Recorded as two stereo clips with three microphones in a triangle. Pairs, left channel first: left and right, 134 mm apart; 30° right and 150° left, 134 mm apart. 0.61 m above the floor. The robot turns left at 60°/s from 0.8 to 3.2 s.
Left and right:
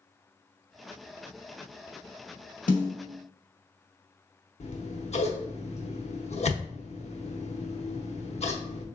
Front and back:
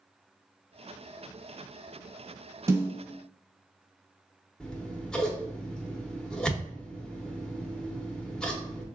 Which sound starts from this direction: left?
A snare drum, at 2.7 s.